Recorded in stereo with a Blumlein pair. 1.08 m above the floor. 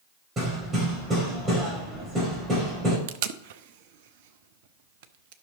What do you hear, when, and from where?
0.4 s hammering: 20° right, 5 m
3.1 s tape being pulled: 50° right, 0.7 m